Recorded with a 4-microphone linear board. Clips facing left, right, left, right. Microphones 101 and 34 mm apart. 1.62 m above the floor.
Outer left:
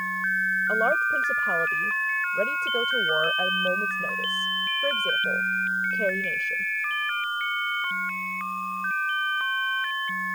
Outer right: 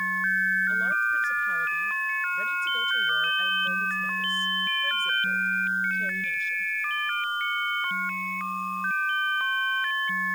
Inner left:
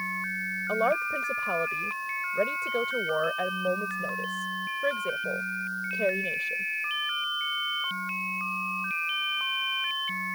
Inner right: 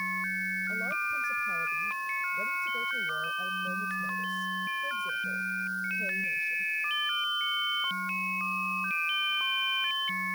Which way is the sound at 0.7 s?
70° left (ahead or behind).